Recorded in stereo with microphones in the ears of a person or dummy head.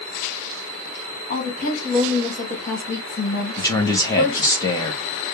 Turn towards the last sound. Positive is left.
turn(degrees=15)  # may be behind; listen again after turning